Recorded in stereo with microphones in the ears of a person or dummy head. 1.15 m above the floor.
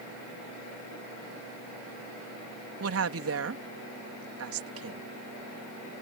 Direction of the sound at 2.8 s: 75° right (ahead or behind).